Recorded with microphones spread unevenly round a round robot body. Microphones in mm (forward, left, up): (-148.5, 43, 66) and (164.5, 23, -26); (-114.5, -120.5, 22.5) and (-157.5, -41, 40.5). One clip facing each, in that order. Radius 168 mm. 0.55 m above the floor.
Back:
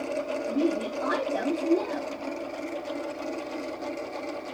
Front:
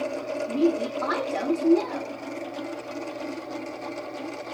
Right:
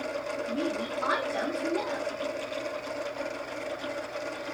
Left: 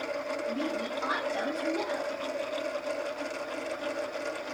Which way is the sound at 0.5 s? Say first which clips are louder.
Front 4 dB, right 2 dB; 50° right.